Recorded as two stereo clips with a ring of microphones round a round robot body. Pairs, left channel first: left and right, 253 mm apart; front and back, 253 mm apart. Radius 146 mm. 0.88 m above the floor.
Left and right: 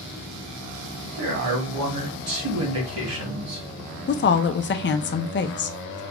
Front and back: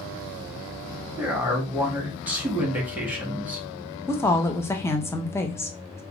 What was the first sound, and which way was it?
A man speaking, 95° right.